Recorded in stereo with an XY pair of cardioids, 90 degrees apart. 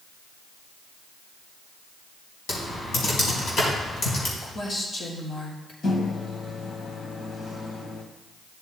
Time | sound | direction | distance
2.5 | typing on a keyboard | 70° left | 4 m
4.4 | a woman speaking | 55° left | 4.5 m
5.8 | a microwave | 60° left | 1.7 m